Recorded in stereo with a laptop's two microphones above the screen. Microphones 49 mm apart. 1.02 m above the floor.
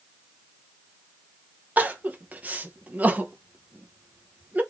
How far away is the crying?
About 0.7 m.